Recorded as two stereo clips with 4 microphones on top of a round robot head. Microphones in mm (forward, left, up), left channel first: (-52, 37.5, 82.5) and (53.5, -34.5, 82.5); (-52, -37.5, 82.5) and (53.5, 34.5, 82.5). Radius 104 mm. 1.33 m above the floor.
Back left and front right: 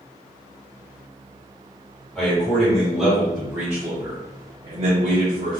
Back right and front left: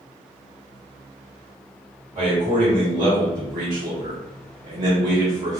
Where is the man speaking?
60° left, 1.8 m; by 5.6 s 10° right, 1.1 m.